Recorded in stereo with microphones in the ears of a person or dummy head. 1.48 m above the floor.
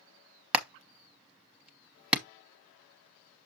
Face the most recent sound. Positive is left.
turn(degrees=-10)  # may be behind; listen again after turning